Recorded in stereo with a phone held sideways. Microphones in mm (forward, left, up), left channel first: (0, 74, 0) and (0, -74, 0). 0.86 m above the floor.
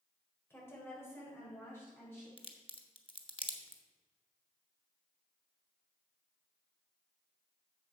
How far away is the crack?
About 1.0 m.